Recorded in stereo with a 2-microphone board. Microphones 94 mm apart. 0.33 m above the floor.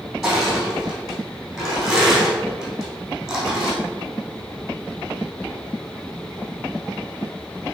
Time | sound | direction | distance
0.2 | crushing | 5° right (ahead or behind) | 3 m